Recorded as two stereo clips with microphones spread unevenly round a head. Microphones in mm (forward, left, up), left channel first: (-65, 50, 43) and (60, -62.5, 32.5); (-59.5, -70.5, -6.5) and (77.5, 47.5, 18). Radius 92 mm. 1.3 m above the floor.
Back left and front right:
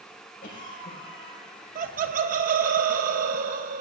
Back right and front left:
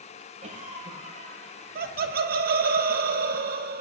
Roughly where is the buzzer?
No buzzer in this recording.